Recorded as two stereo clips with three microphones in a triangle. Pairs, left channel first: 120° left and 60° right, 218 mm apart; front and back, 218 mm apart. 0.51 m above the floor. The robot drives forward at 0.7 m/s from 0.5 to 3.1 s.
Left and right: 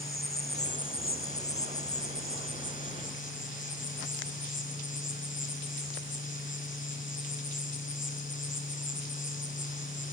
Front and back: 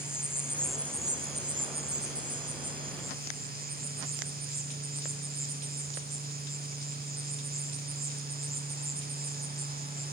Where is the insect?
80° left, 0.9 m; by 10.1 s 155° left, 1.9 m.